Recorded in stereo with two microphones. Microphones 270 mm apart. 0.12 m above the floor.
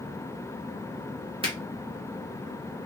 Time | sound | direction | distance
1.4 | a finger snap | 20° right (ahead or behind) | 1.4 m